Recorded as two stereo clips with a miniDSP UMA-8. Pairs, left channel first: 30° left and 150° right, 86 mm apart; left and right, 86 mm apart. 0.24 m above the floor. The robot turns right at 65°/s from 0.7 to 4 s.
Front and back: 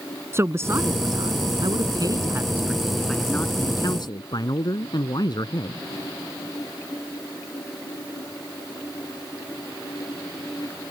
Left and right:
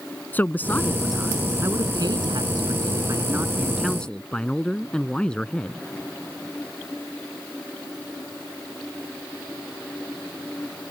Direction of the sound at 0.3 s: 155° left.